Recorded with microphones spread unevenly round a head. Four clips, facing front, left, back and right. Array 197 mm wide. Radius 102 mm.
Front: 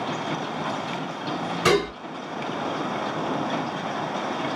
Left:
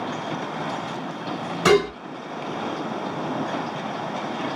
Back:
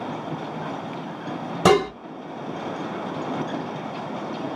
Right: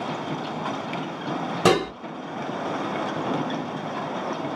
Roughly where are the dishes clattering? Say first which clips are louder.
Left 3 dB, back 4 dB; behind right.